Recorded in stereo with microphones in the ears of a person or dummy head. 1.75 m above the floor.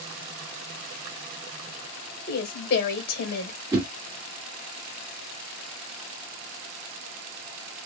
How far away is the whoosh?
About 1.3 m.